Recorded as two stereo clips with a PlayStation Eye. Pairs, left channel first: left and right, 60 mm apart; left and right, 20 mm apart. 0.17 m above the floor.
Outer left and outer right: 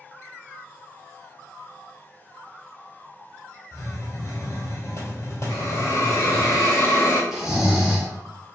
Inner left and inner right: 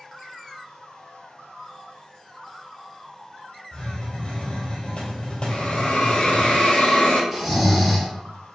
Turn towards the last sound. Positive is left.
turn(degrees=-10)  # may be behind; listen again after turning